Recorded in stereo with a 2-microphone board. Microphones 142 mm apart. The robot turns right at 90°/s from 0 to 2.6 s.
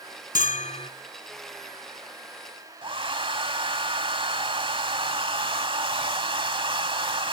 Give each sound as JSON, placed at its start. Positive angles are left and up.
{"t": 0.3, "sound": "a bell", "azimuth_deg": 90, "distance_m": 0.7}
{"t": 2.8, "sound": "a hair dryer", "side_deg": -40, "distance_m": 1.2}